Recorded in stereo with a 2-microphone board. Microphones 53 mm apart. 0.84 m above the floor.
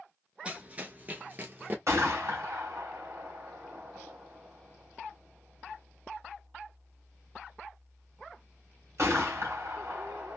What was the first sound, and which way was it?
Running footsteps, 20° right (ahead or behind).